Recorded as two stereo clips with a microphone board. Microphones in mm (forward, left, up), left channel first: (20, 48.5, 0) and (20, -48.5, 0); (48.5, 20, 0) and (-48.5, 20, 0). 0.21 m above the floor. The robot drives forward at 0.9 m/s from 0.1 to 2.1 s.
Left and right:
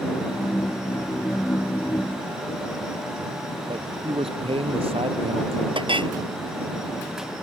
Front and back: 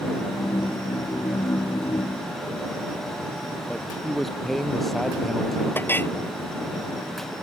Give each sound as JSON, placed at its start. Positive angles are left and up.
{"t": 3.7, "sound": "a man speaking", "azimuth_deg": -90}
{"t": 5.8, "sound": "a clink", "azimuth_deg": -70}